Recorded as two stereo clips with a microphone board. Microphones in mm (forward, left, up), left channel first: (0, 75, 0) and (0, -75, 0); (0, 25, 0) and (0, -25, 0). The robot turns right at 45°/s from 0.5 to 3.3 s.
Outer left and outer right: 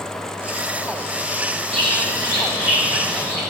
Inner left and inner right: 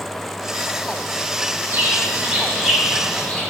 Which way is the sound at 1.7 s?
55° right.